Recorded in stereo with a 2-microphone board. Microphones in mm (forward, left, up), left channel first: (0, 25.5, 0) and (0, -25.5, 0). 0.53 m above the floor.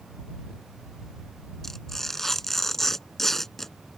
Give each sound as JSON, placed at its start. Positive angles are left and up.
{"t": 1.6, "sound": "tearing paper", "side_deg": 5}